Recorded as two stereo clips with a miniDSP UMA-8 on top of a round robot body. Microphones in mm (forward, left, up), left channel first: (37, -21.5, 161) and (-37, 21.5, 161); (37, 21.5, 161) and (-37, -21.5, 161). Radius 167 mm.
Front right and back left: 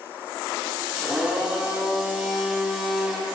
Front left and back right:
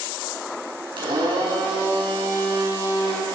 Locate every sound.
1.0 s a blender: 125° right, 5 m